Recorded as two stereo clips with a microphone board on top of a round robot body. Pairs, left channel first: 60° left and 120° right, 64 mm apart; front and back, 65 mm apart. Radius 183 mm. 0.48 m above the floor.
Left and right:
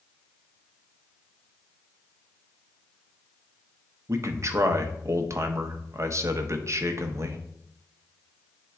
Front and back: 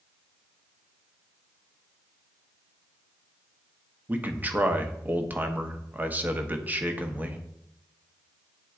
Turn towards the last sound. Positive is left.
turn(degrees=-125)